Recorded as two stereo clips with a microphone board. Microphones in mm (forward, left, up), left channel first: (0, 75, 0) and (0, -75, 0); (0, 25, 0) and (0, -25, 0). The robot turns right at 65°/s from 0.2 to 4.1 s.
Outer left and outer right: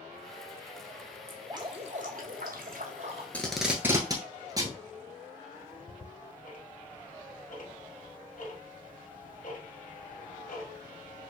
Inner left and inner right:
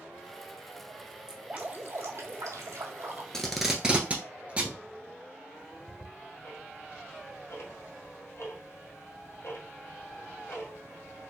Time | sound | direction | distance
1.3 | dripping | 170° right | 0.9 m
3.3 | tape being pulled | 10° left (ahead or behind) | 1.0 m
5.5 | ticking | 65° left (ahead or behind) | 1.9 m